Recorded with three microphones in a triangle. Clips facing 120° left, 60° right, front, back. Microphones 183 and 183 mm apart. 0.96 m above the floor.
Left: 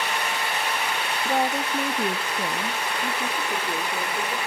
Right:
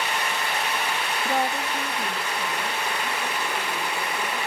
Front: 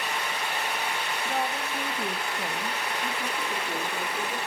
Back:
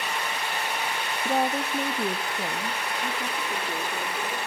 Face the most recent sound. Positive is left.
turn(degrees=95)